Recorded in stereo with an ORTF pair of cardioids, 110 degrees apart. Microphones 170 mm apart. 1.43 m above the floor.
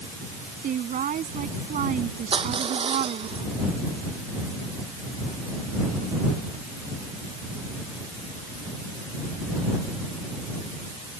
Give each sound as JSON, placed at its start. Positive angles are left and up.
{"t": 0.6, "sound": "a woman speaking", "azimuth_deg": -50}
{"t": 2.3, "sound": "crushing", "azimuth_deg": -35}